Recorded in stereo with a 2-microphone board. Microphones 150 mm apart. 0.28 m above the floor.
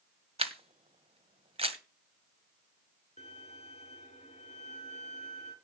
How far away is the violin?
About 3.5 m.